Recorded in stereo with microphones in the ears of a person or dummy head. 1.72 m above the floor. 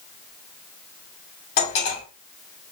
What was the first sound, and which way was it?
Cutlery clinking, 50° left (ahead or behind).